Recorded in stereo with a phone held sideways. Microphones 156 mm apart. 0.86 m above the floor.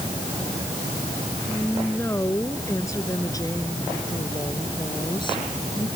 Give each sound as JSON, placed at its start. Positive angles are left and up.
{"t": 1.5, "sound": "a woman speaking", "side_deg": 15}